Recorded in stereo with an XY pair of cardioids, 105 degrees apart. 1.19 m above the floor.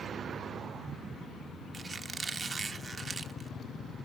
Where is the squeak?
30° right, 1.2 m.